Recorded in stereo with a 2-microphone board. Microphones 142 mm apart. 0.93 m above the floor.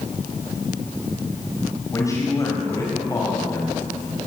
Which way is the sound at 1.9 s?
25° left (ahead or behind).